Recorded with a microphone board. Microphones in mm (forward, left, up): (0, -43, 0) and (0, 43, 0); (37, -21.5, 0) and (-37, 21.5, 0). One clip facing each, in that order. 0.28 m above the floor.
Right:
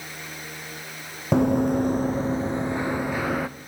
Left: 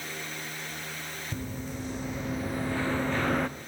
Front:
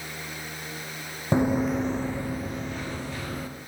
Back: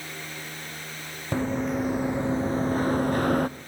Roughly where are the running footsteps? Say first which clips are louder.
Right 19 dB, front 3 dB; right.